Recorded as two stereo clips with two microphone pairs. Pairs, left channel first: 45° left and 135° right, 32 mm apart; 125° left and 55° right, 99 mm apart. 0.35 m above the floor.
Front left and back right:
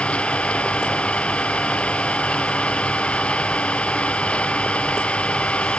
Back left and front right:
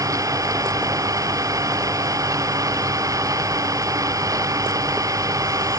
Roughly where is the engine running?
Ahead.